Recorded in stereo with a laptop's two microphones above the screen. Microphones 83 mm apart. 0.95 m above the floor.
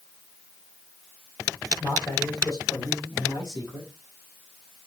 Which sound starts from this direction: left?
A man speaking, at 1.8 s.